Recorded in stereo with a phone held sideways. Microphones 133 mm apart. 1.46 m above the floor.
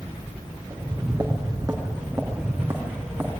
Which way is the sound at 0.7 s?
25° right (ahead or behind).